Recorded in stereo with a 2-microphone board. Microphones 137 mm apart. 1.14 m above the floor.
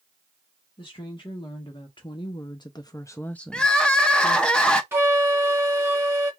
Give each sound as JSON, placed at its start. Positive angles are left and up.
{"t": 0.8, "sound": "a woman speaking", "side_deg": 35, "distance_m": 1.5}
{"t": 3.5, "sound": "crying", "side_deg": 5, "distance_m": 0.5}
{"t": 4.9, "sound": "a flute", "side_deg": -20, "distance_m": 0.9}